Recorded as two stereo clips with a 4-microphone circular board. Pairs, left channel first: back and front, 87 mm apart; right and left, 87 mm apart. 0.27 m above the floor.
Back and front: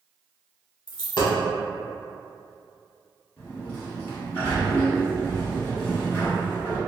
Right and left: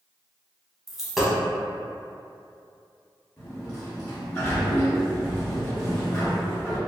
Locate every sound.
0.9 s a dropped coin: straight behind, 0.8 m
3.4 s a sliding door: 165° right, 1.4 m